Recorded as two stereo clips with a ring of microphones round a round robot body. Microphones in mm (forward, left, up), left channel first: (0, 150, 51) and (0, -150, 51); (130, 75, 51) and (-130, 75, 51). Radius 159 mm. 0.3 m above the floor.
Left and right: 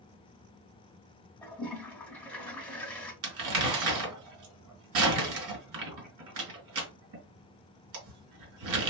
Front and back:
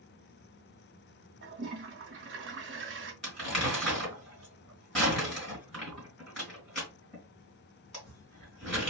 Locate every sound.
1.4 s a toilet flushing: 175° left, 1.1 m
3.2 s crumpling: 90° right, 2.5 m